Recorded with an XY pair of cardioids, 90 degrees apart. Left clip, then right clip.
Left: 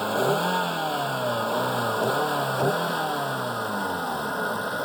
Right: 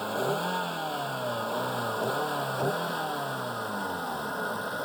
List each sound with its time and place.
0.0 s a vehicle: 45° left; by 4.8 s 35° left